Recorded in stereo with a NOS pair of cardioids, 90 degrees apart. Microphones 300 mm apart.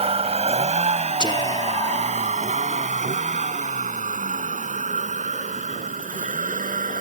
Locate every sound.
0.0 s a vehicle: 20° right; by 7.0 s 25° right
1.2 s whispering: 15° left